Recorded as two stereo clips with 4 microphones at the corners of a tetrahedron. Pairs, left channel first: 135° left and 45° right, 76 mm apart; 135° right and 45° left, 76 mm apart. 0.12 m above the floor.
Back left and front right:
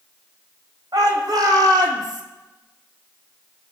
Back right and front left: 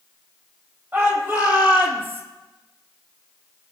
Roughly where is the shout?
Ahead.